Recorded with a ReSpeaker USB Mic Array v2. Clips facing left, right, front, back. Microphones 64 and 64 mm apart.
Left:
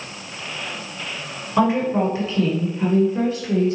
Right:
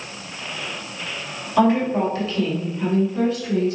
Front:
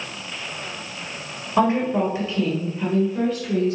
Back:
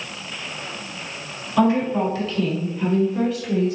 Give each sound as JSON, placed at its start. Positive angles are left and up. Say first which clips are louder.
{"t": 1.6, "sound": "a woman speaking", "louder": "right 1 dB, back 1 dB", "azimuth_deg": 20, "distance_m": 1.4}